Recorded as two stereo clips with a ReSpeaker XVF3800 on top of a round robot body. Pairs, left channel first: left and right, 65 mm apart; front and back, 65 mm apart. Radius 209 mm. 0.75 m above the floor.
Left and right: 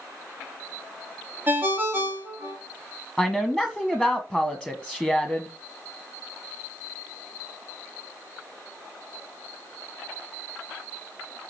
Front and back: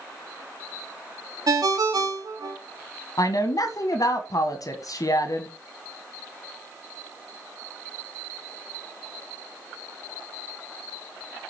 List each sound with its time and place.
1.5 s a ringtone: 150° right, 1.2 m
3.2 s a woman speaking: 5° right, 1.4 m